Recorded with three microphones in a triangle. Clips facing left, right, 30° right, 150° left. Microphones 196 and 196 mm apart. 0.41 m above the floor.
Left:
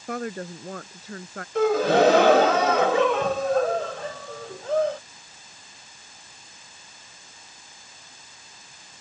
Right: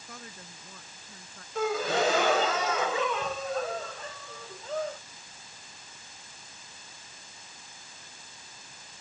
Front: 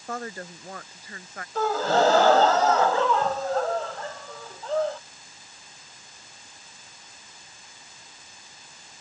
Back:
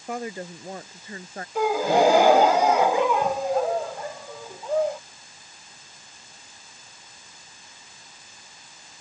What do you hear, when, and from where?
0.1 s a woman speaking: 75° left; by 1.4 s 90° left
1.6 s a gasp: 75° left